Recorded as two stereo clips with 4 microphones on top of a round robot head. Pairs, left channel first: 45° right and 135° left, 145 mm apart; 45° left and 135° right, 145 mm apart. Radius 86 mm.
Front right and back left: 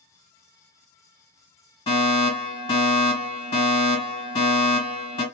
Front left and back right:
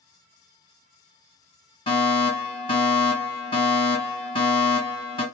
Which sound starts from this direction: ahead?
A fire alarm, at 1.9 s.